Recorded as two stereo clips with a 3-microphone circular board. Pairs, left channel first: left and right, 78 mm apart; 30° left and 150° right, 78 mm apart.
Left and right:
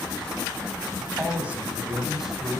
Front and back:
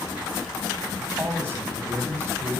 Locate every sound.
1.0 s a man speaking: 125° right, 1.6 m; by 2.6 s straight behind, 1.8 m